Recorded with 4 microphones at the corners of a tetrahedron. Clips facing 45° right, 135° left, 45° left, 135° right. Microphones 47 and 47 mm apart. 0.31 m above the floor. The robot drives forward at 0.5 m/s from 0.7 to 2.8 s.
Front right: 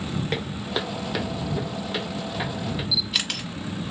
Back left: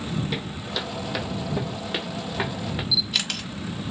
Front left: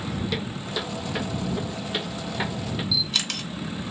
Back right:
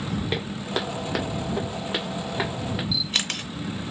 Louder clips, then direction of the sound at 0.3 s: Front right 2 dB, back right 2 dB; 80° right.